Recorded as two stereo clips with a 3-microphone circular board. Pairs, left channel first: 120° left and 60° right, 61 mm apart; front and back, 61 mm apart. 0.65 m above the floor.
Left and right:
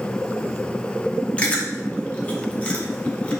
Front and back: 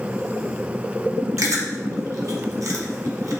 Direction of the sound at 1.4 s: 175° right.